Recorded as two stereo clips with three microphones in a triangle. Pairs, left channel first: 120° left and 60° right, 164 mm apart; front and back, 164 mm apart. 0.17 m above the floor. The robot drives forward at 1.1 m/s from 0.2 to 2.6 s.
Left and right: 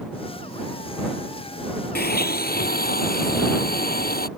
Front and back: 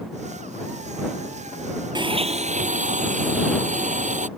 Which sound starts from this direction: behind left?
A blender, at 1.9 s.